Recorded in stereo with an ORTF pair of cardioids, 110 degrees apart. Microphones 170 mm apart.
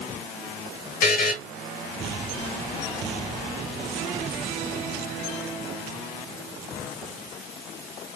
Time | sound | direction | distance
1.0 | a buzzer | 60° left | 0.5 m